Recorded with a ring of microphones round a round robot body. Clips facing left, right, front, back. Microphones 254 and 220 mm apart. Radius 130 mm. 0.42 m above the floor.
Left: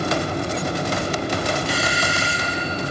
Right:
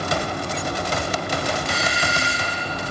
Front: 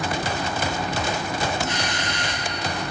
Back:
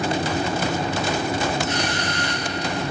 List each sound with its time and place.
1.7 s a doorbell: 5° left, 4 m